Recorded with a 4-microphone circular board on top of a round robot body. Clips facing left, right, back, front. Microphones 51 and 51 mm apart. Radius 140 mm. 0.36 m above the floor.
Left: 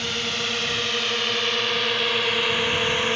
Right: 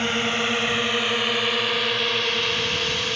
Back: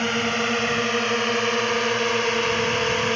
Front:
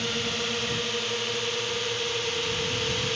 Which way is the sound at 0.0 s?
145° right.